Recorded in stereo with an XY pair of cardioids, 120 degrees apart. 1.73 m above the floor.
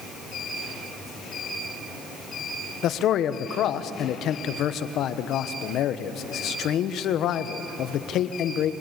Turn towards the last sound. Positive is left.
turn(degrees=65)